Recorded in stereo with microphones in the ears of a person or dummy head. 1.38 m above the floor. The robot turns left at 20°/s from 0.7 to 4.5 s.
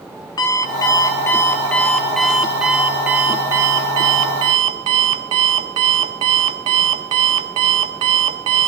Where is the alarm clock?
30° left, 1.1 m; by 8.7 s 45° right, 1.1 m.